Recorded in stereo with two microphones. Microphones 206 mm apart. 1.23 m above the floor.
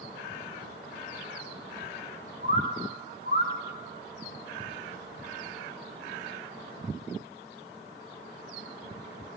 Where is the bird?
55° left (ahead or behind), 0.9 m.